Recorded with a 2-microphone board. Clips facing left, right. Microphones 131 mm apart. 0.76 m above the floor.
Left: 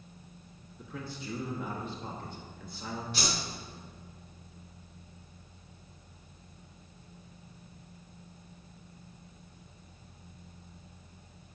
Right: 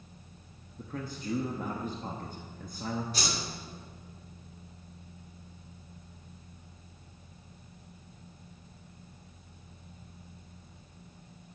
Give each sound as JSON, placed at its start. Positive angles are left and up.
{"t": 0.8, "sound": "a man speaking", "side_deg": -45, "distance_m": 0.8}
{"t": 3.1, "sound": "a whoosh", "side_deg": -40, "distance_m": 2.5}